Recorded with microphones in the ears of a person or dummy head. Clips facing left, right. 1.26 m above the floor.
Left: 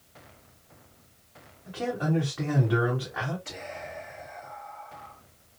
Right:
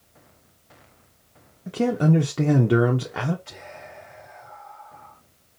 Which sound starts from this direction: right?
A man speaking, at 1.7 s.